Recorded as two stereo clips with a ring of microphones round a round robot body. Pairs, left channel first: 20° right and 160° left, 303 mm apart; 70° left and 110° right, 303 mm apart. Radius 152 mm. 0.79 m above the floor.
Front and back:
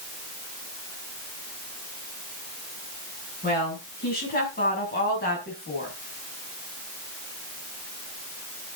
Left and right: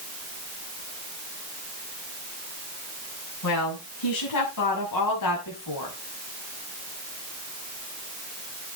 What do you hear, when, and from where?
3.4 s a woman speaking: 40° left, 6.5 m; by 6.0 s 35° left, 5 m